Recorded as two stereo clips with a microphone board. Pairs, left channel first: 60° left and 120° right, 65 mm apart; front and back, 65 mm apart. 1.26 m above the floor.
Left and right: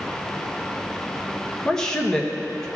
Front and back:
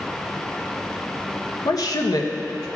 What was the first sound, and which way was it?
A woman speaking, 20° right.